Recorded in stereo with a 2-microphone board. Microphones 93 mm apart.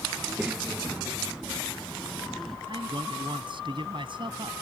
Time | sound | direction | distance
0.2 | a child speaking | 15° right (ahead or behind) | ?
2.7 | a man speaking | 60° right (ahead or behind) | ?